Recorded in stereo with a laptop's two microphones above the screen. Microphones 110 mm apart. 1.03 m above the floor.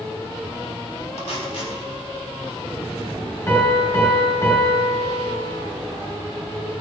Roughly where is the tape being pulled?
Left.